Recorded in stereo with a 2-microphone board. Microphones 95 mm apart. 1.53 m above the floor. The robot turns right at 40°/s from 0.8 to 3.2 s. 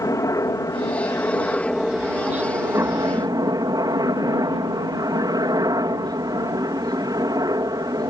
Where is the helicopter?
135° left; by 8.1 s 130° right.